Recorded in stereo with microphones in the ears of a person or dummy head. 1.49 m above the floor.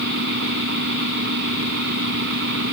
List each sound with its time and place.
0.0 s a fan: 55° right (ahead or behind)